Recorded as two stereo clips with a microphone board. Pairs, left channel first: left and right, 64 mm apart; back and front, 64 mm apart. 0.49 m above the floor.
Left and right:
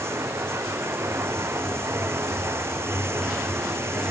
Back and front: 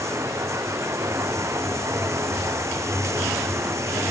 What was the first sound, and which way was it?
Running water, 45° right.